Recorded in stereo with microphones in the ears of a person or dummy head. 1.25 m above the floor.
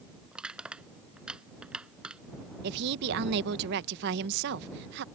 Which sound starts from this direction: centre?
Crushing, at 0.3 s.